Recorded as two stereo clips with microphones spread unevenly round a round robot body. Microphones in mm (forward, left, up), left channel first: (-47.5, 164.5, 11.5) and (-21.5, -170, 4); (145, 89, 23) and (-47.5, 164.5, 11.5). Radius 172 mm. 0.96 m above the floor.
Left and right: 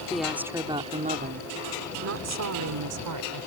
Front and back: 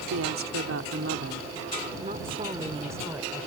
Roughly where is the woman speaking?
Behind.